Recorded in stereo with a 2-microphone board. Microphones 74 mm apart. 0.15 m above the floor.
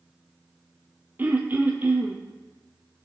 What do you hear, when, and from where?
1.2 s throat clearing: 25° right (ahead or behind), 1.4 m